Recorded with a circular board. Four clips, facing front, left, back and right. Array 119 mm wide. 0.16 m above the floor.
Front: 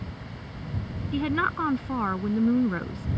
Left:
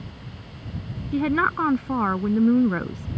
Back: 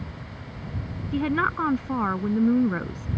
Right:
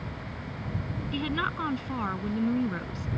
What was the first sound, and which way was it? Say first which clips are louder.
A woman speaking: left 10 dB, back 2 dB; 105° left.